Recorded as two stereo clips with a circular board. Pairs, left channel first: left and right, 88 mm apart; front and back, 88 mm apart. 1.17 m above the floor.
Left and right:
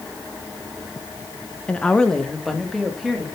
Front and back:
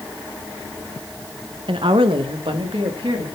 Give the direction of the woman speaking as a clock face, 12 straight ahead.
6 o'clock.